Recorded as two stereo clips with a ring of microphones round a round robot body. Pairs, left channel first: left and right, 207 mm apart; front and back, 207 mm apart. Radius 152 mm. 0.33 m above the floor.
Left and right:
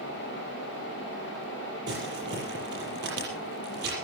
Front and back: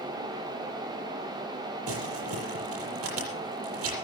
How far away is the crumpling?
About 7 m.